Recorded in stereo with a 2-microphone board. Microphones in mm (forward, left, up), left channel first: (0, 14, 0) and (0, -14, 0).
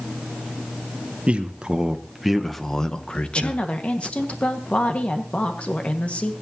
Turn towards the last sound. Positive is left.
turn(degrees=45)  # may be behind; listen again after turning